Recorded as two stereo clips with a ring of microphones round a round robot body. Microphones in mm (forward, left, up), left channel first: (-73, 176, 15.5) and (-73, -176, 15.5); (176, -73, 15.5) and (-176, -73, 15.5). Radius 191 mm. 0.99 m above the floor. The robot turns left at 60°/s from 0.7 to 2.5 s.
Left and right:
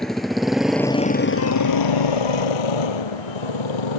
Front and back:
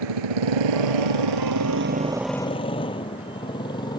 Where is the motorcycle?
Straight behind; by 4.0 s 80° left.